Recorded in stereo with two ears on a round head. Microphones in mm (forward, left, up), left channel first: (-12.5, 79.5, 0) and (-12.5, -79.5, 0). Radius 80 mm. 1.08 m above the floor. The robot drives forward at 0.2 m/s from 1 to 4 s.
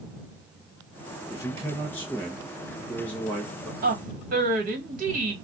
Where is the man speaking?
15° left (ahead or behind), 0.5 m; by 3.7 s 10° left (ahead or behind), 1.0 m.